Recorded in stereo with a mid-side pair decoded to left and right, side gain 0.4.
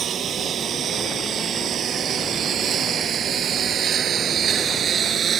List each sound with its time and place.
0.0 s a lawn mower: 65° right; by 5.4 s 60° right